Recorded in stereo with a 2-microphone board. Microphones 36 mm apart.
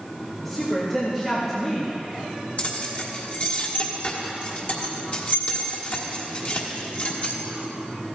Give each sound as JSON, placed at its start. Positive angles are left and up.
{"t": 0.4, "sound": "a woman speaking", "side_deg": 10, "distance_m": 2.0}
{"t": 2.6, "sound": "keys jangling", "side_deg": 40, "distance_m": 1.4}